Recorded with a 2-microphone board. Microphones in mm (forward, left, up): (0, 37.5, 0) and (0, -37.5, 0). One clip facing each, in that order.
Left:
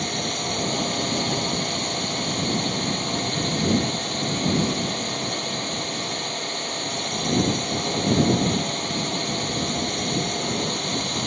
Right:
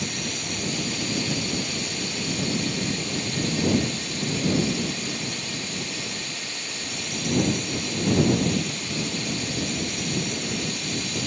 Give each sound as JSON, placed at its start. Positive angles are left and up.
{"t": 0.0, "sound": "a drone", "side_deg": 50}